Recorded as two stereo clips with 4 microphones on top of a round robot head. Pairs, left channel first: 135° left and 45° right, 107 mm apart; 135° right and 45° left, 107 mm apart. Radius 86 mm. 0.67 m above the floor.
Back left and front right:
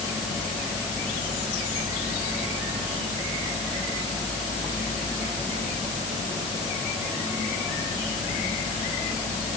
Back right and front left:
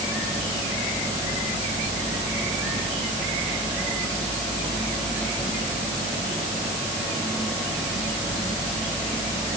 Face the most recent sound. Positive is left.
No sound to turn to.